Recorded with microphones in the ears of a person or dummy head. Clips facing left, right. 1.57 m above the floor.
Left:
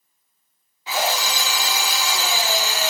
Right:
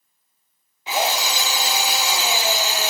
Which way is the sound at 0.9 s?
15° right (ahead or behind).